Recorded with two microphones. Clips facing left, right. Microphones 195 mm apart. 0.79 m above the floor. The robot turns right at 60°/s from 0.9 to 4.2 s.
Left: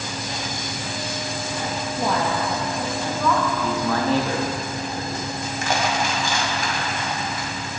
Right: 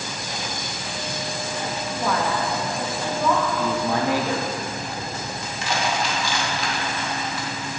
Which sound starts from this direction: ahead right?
A man speaking, at 3.6 s.